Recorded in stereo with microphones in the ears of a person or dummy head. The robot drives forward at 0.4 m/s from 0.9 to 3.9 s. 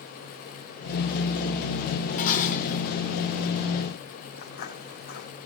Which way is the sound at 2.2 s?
50° left (ahead or behind).